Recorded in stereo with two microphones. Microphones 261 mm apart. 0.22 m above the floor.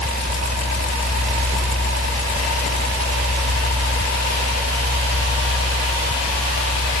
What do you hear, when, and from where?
0.0 s a helicopter: 75° right (ahead or behind)